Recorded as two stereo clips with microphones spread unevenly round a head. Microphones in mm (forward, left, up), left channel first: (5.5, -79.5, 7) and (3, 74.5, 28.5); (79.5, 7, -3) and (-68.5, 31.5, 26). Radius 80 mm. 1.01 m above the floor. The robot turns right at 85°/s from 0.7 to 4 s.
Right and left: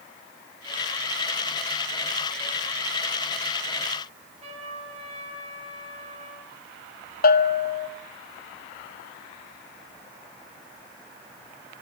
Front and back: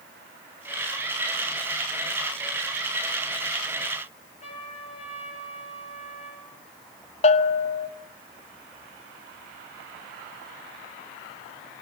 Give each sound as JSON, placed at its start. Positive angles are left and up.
{"t": 4.4, "sound": "a trumpet", "azimuth_deg": 40, "distance_m": 6.5}
{"t": 7.2, "sound": "a bell", "azimuth_deg": -60, "distance_m": 1.4}